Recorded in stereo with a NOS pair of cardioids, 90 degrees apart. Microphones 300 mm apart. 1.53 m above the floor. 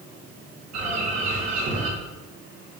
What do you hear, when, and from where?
0.7 s a bird: 65° right, 2.5 m